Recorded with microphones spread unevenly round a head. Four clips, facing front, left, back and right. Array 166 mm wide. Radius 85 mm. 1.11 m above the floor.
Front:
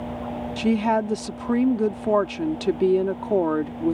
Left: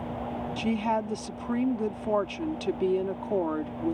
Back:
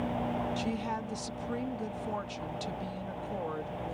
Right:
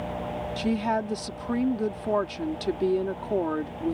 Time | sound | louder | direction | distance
0.6 | a woman speaking | right 1 dB, front 13 dB | 5° right | ?